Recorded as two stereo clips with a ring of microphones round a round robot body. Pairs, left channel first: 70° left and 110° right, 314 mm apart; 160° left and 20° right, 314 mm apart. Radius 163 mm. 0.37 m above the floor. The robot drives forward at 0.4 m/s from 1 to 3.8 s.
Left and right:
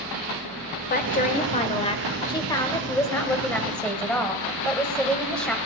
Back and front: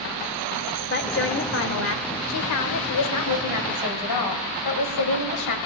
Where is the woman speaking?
115° left, 1.2 m; by 5.6 s 155° left, 1.9 m.